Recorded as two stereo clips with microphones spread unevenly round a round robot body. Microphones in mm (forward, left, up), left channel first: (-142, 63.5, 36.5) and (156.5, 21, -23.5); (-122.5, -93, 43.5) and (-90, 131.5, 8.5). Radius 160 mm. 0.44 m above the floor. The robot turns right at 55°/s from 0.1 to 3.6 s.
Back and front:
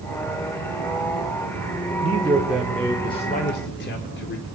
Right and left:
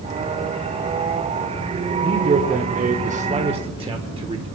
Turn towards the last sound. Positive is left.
turn(degrees=120)